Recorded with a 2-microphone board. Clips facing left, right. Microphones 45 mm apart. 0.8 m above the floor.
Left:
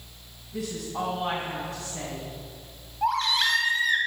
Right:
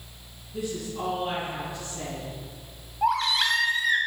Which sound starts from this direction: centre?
A baby crying, at 3.0 s.